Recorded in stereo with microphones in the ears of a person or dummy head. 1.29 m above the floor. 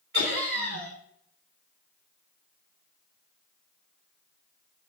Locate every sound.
0.1 s laughter: 50° right (ahead or behind), 4 m